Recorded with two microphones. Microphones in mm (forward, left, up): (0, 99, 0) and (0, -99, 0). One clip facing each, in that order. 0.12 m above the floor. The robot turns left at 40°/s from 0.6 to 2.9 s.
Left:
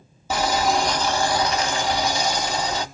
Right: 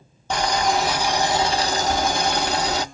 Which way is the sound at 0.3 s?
5° left.